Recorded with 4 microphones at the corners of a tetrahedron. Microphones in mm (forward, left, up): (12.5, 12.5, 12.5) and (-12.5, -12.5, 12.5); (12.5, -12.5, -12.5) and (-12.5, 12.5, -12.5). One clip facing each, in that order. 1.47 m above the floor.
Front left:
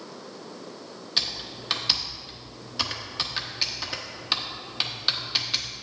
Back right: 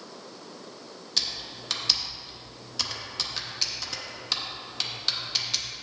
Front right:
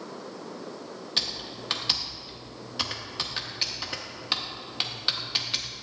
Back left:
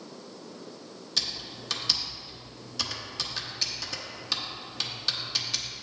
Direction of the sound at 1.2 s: 5° right.